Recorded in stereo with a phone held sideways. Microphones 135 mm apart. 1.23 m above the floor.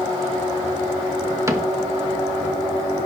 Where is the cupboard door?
20° right (ahead or behind), 1.1 m.